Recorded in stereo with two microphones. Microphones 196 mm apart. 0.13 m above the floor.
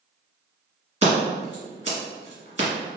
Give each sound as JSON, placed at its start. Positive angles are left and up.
{"t": 1.0, "sound": "scissors", "side_deg": -30, "distance_m": 1.7}